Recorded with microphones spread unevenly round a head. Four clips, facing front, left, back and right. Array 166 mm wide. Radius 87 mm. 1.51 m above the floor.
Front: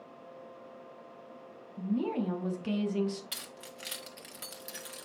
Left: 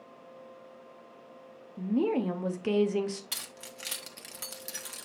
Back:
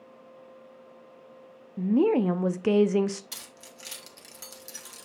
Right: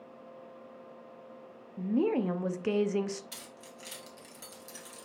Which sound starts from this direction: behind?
A woman speaking, at 1.8 s.